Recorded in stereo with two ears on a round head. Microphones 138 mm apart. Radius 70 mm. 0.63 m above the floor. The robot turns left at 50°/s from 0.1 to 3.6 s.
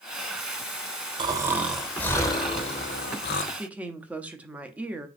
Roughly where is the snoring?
Behind right.